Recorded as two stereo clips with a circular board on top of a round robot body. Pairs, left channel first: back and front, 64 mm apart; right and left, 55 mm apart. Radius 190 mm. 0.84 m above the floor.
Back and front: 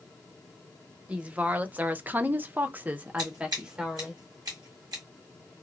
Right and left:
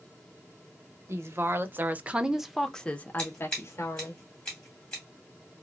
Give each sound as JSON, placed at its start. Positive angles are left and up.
{"t": 1.1, "sound": "a woman speaking", "azimuth_deg": 65, "distance_m": 1.0}
{"t": 3.2, "sound": "scissors", "azimuth_deg": -25, "distance_m": 0.7}